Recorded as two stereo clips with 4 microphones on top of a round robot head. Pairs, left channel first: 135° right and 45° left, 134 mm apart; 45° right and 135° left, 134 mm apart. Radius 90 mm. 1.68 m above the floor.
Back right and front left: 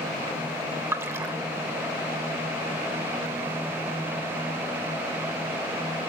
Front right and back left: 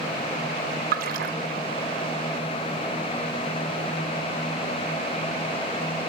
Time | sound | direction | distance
0.9 | a splash | 115° left | 0.6 m